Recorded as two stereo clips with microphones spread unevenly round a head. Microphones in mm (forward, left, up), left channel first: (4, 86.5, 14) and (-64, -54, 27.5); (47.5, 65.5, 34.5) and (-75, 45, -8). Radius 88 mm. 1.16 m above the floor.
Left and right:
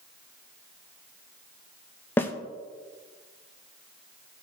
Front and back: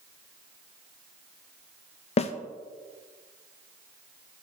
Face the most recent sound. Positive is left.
turn(degrees=15)